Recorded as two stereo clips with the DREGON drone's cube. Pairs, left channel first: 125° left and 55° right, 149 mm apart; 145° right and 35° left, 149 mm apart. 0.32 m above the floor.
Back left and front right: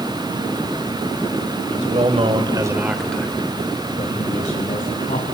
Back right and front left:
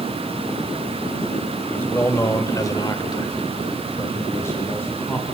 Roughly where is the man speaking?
Right.